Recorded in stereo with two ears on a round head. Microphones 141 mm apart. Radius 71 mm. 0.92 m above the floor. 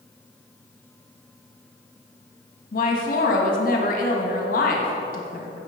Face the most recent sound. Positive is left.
turn(degrees=60)  # may be behind; listen again after turning